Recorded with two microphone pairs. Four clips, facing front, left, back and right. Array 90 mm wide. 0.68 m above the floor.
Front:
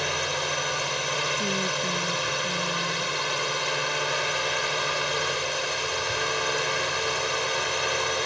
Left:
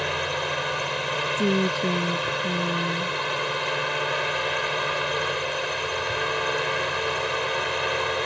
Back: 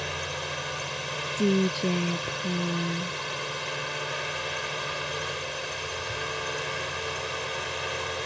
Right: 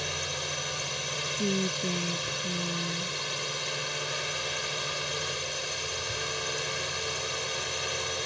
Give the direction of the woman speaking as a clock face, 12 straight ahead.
8 o'clock.